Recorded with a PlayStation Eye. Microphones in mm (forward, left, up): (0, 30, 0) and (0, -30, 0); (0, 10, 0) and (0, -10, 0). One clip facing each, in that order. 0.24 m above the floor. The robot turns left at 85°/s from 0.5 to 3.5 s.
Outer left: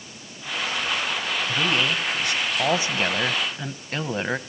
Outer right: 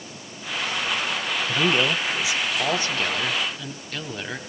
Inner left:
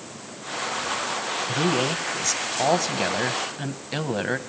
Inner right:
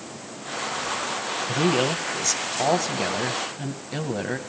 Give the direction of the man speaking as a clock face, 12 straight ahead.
3 o'clock.